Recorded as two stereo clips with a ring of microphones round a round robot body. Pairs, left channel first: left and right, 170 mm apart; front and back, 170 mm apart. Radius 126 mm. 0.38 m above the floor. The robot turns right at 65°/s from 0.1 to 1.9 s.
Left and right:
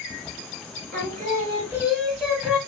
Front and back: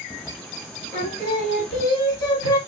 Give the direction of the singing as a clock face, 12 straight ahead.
2 o'clock.